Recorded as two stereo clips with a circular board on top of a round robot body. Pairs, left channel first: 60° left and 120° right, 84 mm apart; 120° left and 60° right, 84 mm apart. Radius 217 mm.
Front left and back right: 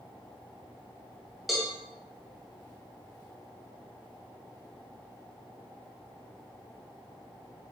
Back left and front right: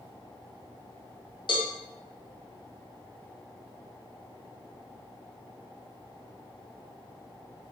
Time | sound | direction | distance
1.5 | a cowbell | 150° left | 0.9 m